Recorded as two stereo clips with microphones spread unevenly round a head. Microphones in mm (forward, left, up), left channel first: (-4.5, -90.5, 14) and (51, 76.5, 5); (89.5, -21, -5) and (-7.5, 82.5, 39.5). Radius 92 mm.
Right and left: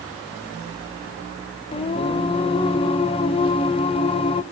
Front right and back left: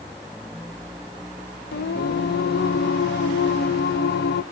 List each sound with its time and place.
1.7 s singing: 65° right, 0.9 m